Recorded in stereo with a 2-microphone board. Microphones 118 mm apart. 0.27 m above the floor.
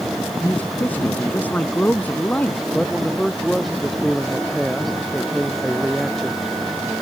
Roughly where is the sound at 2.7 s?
Centre.